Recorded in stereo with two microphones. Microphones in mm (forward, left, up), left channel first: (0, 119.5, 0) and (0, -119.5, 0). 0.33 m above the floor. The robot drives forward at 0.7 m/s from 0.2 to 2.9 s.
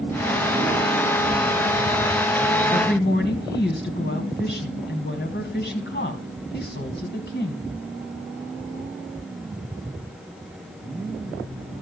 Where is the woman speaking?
50° left (ahead or behind), 2 m; by 7.7 s 45° left (ahead or behind), 2.5 m.